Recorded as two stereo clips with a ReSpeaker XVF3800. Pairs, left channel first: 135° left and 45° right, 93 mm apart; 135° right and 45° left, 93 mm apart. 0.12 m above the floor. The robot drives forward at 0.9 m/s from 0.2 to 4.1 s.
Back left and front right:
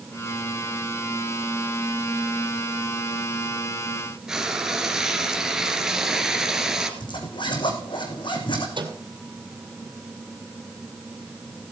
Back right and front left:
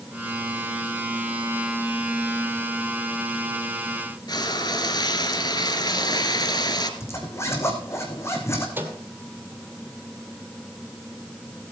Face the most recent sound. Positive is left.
turn(degrees=-20)